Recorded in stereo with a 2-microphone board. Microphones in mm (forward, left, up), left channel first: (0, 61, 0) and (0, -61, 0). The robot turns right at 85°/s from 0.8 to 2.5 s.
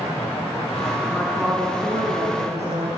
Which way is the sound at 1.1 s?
155° left.